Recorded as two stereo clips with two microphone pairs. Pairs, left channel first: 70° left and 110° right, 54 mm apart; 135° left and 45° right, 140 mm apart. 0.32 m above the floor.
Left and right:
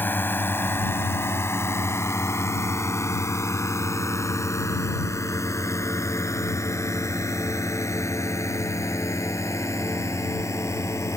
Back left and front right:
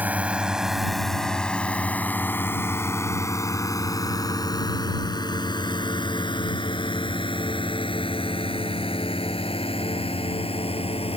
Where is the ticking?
No ticking in this recording.